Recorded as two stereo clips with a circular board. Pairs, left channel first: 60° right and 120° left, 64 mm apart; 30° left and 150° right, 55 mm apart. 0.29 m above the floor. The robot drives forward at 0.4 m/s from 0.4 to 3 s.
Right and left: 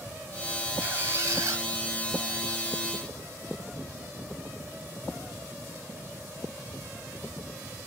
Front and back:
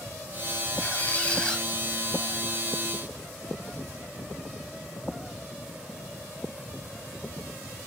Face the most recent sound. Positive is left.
turn(degrees=150)